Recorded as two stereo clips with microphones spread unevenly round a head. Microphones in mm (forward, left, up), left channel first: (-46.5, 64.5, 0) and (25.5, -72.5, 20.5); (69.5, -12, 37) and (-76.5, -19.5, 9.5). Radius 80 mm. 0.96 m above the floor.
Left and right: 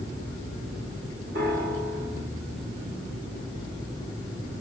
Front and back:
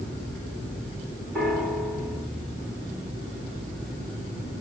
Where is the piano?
85° right, 2.5 m.